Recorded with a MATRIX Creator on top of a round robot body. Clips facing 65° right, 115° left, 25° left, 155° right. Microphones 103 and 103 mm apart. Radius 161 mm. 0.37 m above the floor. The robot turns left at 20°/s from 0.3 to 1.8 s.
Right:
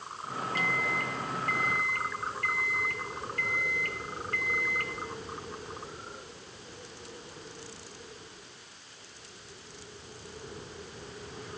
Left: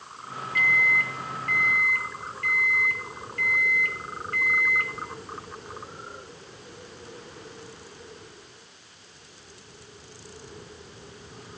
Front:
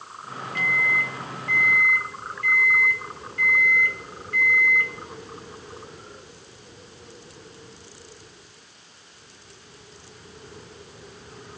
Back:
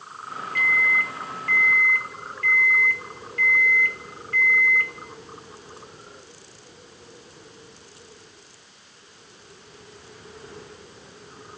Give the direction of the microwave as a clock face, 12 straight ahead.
1 o'clock.